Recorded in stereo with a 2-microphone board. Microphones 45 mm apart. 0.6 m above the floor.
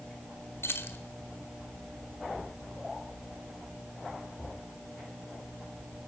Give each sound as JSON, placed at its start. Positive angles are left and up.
{"t": 0.6, "sound": "keys jangling", "side_deg": 70, "distance_m": 1.8}